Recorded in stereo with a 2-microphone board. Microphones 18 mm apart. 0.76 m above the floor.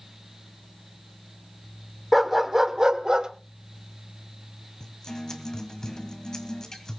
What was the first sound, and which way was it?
A dog barking, centre (ahead or behind).